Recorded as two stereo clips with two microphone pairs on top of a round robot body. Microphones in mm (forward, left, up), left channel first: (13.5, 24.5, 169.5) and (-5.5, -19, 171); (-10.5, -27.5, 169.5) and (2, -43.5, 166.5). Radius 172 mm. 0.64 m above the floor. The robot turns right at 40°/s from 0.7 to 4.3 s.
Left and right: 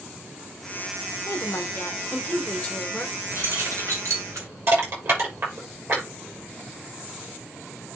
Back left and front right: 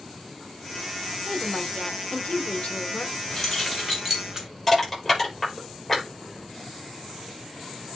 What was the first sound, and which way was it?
A woman speaking, 85° left.